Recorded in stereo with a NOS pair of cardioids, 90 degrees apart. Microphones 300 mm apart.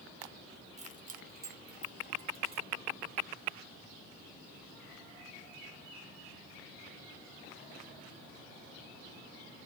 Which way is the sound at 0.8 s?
20° right.